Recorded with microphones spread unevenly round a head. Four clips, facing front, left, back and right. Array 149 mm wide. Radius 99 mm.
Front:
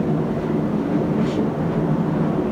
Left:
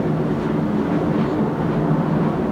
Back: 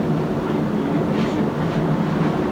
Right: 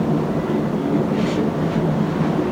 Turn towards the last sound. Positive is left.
No sound to turn to.